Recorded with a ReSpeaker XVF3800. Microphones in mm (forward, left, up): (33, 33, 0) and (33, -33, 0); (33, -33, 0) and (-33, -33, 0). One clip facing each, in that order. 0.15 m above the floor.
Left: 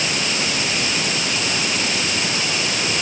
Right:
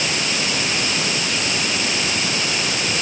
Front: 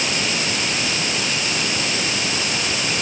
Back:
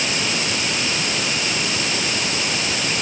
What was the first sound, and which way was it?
Only background noise.